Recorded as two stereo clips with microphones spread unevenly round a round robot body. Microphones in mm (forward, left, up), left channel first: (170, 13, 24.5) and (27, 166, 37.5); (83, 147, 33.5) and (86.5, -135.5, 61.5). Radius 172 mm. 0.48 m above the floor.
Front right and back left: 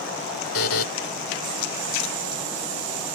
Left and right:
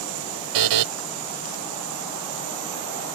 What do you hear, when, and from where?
0.5 s a buzzer: 90° right